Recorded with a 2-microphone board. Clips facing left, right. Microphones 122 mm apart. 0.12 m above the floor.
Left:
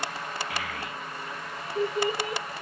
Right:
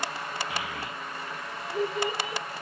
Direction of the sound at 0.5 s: 25° right (ahead or behind).